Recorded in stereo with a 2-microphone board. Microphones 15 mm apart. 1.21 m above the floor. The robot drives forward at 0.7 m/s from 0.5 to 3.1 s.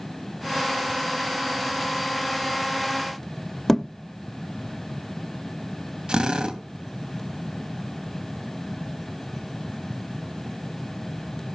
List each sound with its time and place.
3.7 s a thud: 15° left (ahead or behind), 0.7 m
6.1 s a drill: 65° right (ahead or behind), 2.5 m